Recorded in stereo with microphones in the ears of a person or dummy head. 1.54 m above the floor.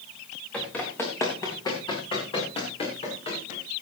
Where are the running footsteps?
Centre (ahead or behind), 4 m; by 3.6 s 35° left (ahead or behind), 6.5 m.